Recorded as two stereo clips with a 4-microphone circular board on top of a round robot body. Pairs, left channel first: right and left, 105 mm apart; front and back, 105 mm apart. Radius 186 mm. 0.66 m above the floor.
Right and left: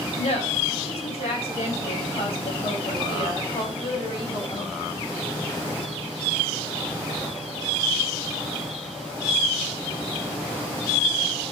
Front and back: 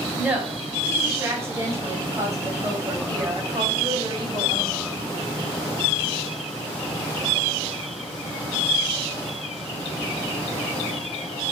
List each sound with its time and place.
0.2 s a woman speaking: 100° right, 5.5 m; by 4.8 s 140° right, 5 m